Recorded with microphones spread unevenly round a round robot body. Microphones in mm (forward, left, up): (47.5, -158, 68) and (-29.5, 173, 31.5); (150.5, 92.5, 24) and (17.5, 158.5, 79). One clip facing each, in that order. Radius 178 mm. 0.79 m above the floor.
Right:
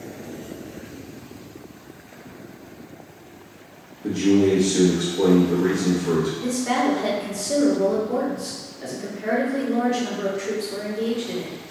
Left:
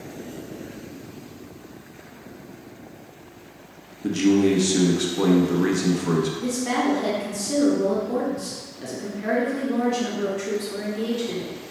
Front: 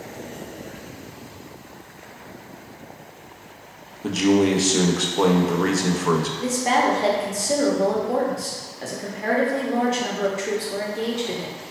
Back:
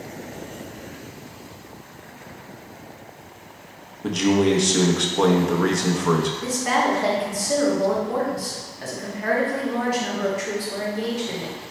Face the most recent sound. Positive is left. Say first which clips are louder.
# right 1 dB, front 2 dB
turn(degrees=25)